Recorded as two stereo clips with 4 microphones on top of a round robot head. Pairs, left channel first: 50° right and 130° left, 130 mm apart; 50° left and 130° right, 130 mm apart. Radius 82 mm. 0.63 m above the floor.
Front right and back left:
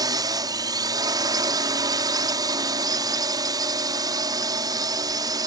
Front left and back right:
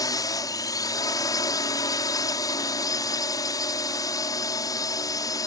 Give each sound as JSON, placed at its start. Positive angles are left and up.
{"t": 0.0, "sound": "a drone", "azimuth_deg": 95}